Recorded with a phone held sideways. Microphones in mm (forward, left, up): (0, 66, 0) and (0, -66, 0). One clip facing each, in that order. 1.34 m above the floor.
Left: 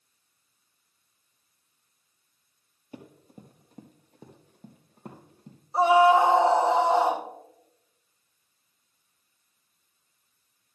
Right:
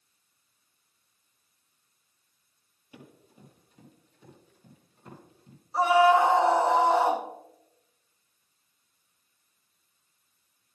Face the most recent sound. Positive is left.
turn(degrees=25)  # may be behind; listen again after turning